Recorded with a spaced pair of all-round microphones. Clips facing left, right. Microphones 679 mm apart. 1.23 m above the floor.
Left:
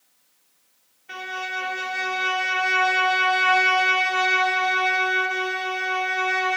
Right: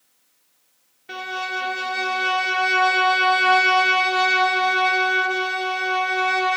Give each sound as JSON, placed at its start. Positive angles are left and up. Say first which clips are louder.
{"t": 1.1, "sound": "a violin", "louder": "right 4 dB", "side_deg": -65, "distance_m": 0.8}